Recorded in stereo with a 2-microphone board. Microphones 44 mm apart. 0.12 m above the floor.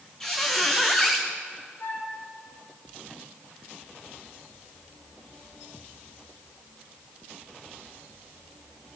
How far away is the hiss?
No hiss in this recording.